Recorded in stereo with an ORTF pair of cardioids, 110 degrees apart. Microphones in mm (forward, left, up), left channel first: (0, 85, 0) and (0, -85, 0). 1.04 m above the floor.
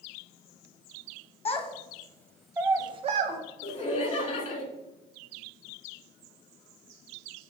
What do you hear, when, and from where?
1.4 s a child speaking: 35° left, 0.9 m; by 3.4 s 55° right, 0.6 m
3.6 s laughter: 45° left, 1.3 m